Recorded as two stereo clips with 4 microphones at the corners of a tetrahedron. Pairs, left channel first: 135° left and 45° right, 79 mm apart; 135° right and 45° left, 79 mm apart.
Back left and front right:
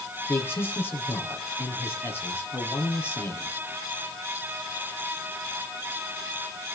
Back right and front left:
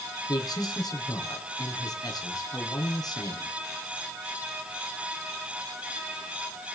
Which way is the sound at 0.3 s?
165° right.